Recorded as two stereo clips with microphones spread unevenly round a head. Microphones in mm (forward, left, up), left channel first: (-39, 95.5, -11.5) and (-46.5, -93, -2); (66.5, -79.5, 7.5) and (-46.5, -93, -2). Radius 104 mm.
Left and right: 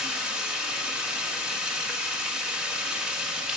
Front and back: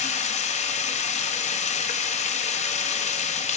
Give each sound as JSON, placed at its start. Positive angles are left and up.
{"t": 0.0, "sound": "running water", "azimuth_deg": -5, "distance_m": 1.1}